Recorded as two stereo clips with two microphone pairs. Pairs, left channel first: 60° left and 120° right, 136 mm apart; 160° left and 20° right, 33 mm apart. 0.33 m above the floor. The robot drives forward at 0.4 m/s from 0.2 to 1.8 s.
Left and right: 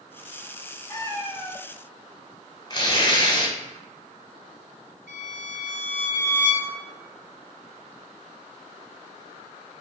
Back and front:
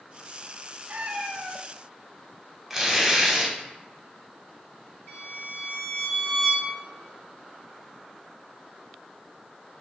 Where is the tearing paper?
55° left, 0.8 m.